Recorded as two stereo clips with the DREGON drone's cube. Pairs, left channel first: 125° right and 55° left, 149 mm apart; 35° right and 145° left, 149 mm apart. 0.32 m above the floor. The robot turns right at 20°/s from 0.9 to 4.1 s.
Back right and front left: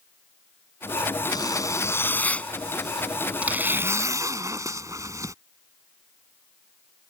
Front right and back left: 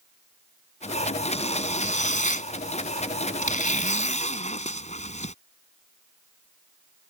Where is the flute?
No flute in this recording.